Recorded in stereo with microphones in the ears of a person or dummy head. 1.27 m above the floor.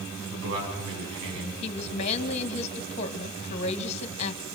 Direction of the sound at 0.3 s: 75° right (ahead or behind).